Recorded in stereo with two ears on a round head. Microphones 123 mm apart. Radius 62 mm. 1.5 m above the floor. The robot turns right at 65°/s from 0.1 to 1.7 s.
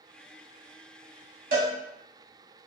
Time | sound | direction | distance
1.5 | a cowbell | 70° right (ahead or behind) | 1.1 m